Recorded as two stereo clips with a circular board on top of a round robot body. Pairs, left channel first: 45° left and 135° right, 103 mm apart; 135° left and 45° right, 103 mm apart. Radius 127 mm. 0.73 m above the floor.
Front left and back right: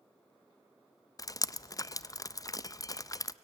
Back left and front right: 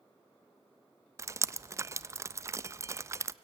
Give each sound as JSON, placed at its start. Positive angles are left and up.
{"t": 1.2, "sound": "dripping", "azimuth_deg": 5, "distance_m": 0.5}